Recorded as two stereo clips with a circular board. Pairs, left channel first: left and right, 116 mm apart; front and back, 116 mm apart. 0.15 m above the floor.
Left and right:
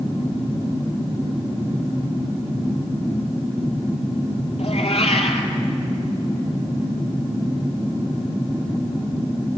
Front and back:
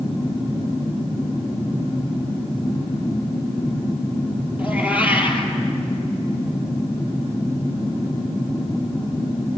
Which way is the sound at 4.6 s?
105° left.